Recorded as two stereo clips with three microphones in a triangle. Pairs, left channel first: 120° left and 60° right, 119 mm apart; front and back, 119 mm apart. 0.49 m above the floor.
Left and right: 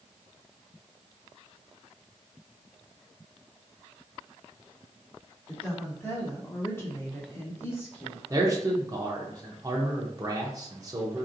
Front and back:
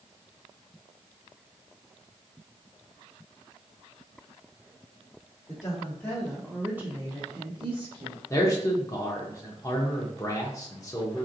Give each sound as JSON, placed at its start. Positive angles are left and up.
{"t": 5.5, "sound": "a woman speaking", "azimuth_deg": 45, "distance_m": 1.3}
{"t": 8.3, "sound": "a man speaking", "azimuth_deg": -35, "distance_m": 0.7}